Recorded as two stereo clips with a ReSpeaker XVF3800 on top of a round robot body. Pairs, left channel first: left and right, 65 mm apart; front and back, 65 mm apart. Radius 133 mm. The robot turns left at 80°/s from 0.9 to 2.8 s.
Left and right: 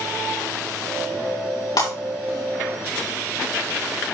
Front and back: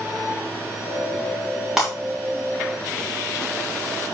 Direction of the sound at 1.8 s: 100° left.